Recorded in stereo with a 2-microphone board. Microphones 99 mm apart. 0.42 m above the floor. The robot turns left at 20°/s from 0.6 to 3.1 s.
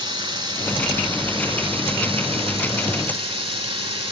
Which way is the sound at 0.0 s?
45° right.